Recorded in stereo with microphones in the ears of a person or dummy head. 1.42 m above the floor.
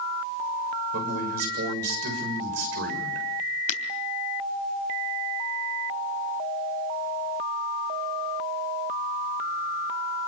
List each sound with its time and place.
0.9 s a man speaking: 70° right (ahead or behind), 7 m
3.7 s breaking glass: 55° left (ahead or behind), 3 m